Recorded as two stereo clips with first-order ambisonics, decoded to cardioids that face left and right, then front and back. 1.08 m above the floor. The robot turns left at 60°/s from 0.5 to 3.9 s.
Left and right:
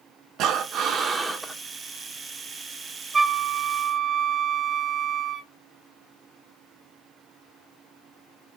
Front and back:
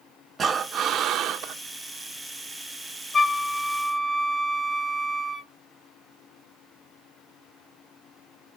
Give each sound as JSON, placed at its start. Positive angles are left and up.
{"t": 0.4, "sound": "breathing", "azimuth_deg": -115, "distance_m": 0.8}
{"t": 3.1, "sound": "a flute", "azimuth_deg": -25, "distance_m": 0.6}